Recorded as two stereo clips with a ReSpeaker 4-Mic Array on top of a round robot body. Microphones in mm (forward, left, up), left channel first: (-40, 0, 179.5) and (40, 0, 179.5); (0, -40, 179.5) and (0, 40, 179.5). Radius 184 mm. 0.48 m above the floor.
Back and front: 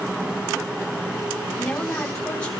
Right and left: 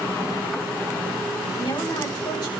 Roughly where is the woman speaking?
Right.